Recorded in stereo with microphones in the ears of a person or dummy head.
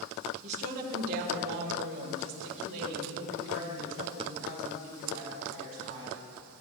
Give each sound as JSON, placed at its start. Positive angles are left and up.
{"t": 0.4, "sound": "a woman speaking", "side_deg": -35, "distance_m": 1.2}